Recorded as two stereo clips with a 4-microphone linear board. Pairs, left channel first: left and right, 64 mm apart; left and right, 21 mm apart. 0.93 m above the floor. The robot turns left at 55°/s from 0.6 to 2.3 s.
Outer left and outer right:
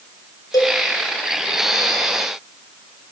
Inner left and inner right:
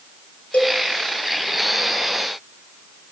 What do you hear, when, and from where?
0.5 s a cowbell: 80° left, 5.5 m